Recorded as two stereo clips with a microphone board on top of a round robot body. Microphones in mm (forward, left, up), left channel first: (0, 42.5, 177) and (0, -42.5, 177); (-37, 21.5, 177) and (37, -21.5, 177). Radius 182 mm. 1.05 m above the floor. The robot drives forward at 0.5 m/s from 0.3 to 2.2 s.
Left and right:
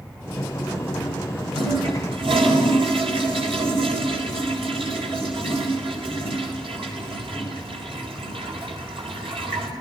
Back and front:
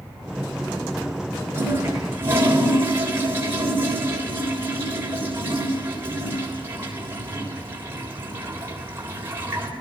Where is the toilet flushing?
90° right, 3.5 m; by 9.7 s 95° right, 3.5 m.